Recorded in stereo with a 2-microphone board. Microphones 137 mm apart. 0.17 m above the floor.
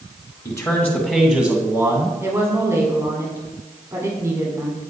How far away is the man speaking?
About 1.6 m.